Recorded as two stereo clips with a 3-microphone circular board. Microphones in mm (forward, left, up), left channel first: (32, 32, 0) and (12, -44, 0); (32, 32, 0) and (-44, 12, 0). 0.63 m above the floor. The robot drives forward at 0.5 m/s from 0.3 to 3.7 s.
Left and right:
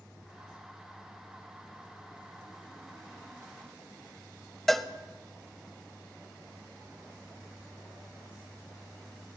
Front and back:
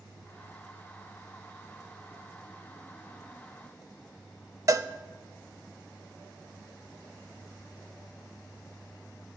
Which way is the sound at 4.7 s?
160° left.